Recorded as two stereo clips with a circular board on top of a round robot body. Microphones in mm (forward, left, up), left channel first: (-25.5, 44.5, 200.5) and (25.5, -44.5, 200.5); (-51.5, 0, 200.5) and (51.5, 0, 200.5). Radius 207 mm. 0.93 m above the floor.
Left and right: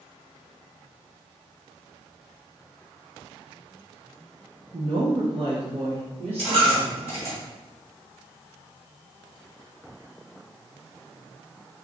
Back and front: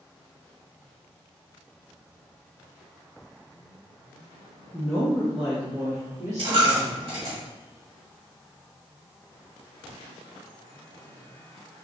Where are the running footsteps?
No running footsteps in this recording.